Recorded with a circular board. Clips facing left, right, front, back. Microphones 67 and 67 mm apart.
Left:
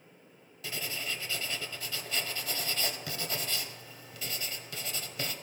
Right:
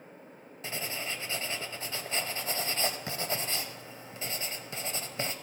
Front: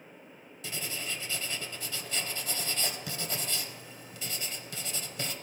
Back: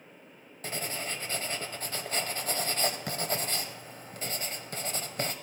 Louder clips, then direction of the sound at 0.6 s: Right 1 dB, back 3 dB; 145° right.